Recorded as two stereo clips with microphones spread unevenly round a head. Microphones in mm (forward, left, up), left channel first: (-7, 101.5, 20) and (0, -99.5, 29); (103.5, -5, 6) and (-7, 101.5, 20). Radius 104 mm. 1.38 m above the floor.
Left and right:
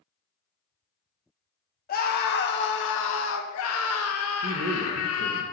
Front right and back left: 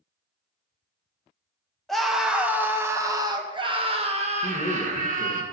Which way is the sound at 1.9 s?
45° left.